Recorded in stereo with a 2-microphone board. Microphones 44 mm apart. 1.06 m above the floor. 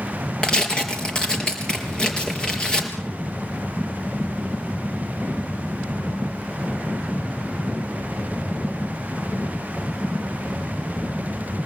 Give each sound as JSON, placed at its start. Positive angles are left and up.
{"t": 0.4, "sound": "tearing paper", "side_deg": 20, "distance_m": 4.0}